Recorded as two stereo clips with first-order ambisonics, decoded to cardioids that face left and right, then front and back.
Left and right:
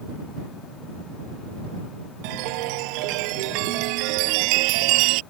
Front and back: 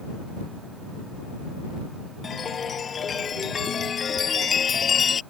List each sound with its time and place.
2.2 s a chime: 70° right